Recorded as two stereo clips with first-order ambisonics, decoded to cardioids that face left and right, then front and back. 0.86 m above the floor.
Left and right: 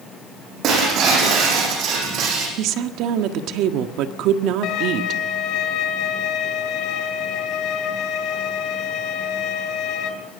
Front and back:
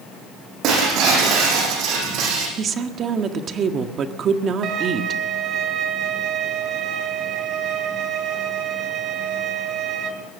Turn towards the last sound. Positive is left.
turn(degrees=130)